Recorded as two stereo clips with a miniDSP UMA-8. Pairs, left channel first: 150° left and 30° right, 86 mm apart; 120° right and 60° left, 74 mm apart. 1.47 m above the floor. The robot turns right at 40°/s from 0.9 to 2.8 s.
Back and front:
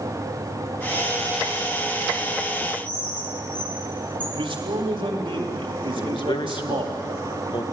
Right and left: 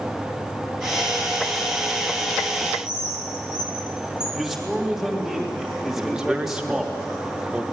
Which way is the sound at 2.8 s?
Straight behind.